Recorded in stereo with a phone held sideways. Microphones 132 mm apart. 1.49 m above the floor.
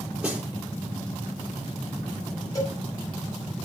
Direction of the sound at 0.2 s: 10° right (ahead or behind).